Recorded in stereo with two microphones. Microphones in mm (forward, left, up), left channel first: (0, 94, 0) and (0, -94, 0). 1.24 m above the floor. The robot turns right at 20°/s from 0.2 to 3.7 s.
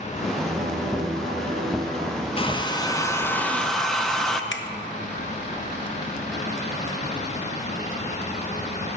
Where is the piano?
100° right, 1.9 m; by 2.3 s 60° right, 1.9 m.